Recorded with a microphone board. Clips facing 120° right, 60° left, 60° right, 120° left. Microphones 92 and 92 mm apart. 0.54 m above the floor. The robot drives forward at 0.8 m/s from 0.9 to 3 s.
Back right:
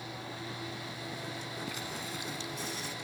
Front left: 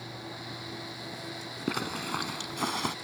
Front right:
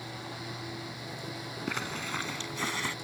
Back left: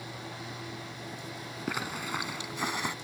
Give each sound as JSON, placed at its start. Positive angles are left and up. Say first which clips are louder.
{"t": 1.7, "sound": "a zipper", "louder": "front left 7 dB, back left 2 dB", "azimuth_deg": 40}